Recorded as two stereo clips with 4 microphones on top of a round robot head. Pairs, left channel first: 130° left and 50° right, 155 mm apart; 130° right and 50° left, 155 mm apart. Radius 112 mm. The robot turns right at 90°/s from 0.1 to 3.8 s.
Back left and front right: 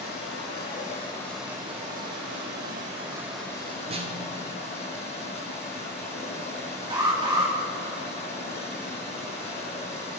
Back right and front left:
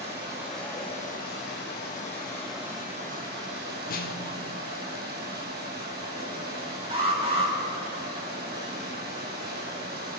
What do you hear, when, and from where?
0.0 s running water: 105° left, 5 m; by 10.2 s 80° left, 5 m
3.9 s a snare drum: 105° right, 1.4 m
6.9 s an alarm: 5° left, 3 m